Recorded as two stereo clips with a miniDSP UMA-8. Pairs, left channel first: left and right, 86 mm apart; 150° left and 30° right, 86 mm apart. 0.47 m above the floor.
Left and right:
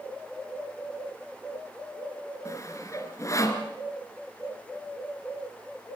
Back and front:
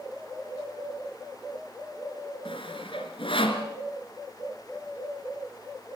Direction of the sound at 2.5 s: 145° left.